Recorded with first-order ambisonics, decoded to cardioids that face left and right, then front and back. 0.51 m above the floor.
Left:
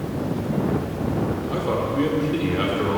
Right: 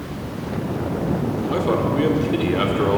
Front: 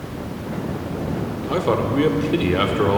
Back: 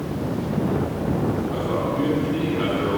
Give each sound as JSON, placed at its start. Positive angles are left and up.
{"t": 1.5, "sound": "a man speaking", "azimuth_deg": -20, "distance_m": 1.2}